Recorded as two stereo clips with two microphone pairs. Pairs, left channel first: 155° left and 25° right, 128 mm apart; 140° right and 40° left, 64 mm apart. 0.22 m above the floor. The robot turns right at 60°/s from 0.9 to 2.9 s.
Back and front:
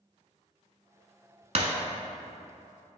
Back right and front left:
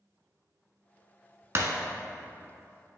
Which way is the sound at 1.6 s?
Straight ahead.